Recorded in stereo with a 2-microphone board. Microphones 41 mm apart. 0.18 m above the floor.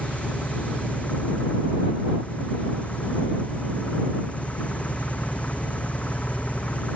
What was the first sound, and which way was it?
An engine running, 35° left (ahead or behind).